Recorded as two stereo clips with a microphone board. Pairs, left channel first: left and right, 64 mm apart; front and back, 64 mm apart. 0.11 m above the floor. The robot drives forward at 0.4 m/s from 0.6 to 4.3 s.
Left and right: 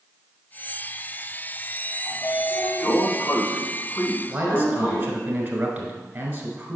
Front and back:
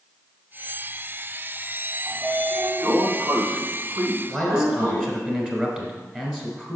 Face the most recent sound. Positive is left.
turn(degrees=-125)